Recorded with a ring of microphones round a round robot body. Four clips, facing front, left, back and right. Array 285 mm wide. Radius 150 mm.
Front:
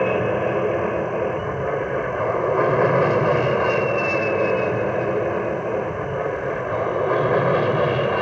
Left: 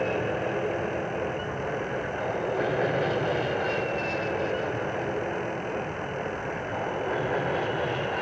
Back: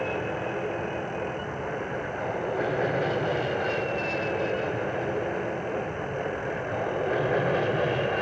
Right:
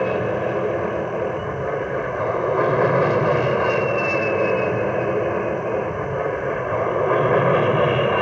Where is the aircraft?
35° right; by 8.2 s 60° right.